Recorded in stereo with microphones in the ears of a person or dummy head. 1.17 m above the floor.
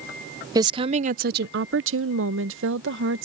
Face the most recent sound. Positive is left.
turn(degrees=-55)  # may be behind; listen again after turning